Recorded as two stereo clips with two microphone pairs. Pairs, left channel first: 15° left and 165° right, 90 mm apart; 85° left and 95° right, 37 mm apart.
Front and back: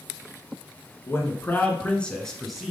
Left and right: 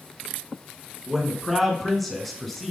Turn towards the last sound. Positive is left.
turn(degrees=130)